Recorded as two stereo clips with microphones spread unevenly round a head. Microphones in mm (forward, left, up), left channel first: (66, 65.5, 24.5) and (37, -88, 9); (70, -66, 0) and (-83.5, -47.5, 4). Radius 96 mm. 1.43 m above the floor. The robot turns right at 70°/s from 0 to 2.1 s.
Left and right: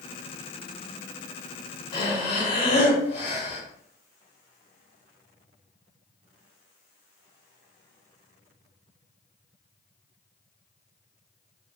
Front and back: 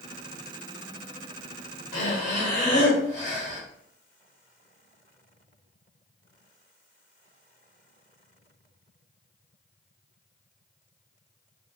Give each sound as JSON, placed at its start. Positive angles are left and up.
{"t": 1.9, "sound": "breathing", "azimuth_deg": 20, "distance_m": 1.5}